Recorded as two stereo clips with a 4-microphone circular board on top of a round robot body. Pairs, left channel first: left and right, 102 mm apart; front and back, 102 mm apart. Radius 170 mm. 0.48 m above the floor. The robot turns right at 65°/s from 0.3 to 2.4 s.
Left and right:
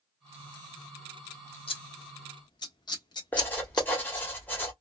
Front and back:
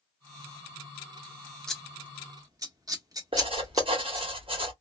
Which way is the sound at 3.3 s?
160° left.